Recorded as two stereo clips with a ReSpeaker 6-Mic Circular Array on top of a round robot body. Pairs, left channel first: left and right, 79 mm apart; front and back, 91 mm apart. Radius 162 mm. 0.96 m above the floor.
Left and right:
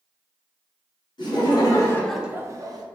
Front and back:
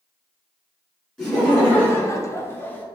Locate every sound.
1.2 s laughter: 80° left, 1.2 m; by 2.8 s 70° right, 0.9 m